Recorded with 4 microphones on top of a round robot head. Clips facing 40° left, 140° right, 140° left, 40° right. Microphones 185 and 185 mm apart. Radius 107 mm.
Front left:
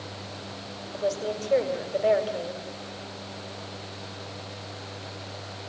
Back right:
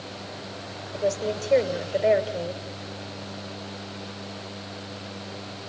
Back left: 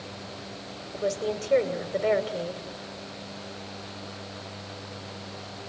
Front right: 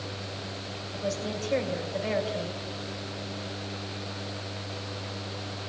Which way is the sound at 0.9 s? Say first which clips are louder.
Back right 2 dB, back left 4 dB; 155° left.